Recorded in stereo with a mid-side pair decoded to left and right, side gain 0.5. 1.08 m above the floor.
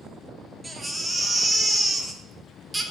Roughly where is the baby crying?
Ahead.